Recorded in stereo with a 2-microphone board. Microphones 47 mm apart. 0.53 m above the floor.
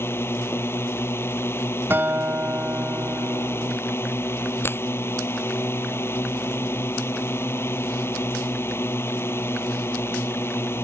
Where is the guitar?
55° right (ahead or behind).